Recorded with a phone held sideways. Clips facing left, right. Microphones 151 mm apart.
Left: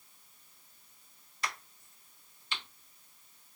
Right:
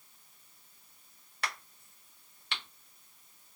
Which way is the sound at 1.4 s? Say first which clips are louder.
Even; 60° right (ahead or behind).